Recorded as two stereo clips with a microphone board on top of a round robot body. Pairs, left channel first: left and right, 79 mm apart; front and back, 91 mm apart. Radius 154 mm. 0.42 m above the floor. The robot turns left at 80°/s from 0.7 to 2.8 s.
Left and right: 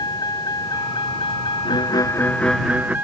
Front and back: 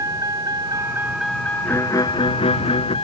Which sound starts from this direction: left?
A violin, at 1.6 s.